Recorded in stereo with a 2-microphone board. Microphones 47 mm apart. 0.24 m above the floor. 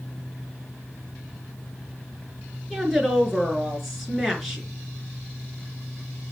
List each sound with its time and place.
2.7 s a woman speaking: 5° right (ahead or behind), 4 m